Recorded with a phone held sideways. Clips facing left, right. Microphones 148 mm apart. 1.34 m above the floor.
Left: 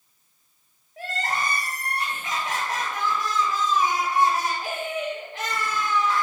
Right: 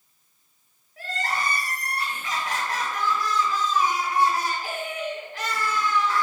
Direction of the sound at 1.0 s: 20° left (ahead or behind).